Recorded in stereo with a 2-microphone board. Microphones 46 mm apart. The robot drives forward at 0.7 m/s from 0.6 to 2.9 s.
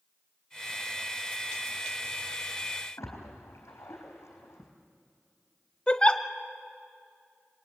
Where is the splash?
90° left, 4 m.